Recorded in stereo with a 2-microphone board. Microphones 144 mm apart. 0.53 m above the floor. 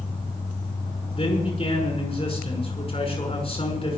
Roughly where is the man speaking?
Left.